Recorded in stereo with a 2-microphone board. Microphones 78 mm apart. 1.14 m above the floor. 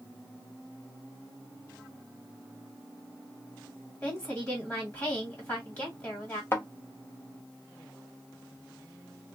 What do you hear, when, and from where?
4.0 s a woman speaking: 30° left (ahead or behind), 1.5 m
6.5 s a thud: 30° left (ahead or behind), 0.8 m